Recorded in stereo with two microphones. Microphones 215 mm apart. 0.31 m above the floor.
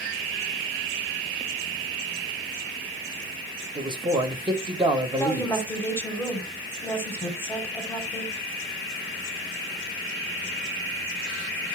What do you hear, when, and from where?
3.8 s a man speaking: 20° right (ahead or behind), 0.9 m
5.2 s a woman speaking: 10° left (ahead or behind), 1.3 m